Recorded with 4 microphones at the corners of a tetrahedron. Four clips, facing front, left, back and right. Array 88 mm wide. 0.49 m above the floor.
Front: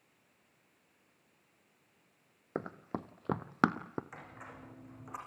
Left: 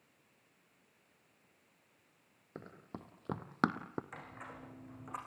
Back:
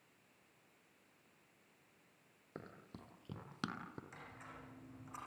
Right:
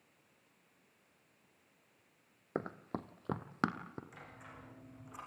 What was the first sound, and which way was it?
Running footsteps, 45° right.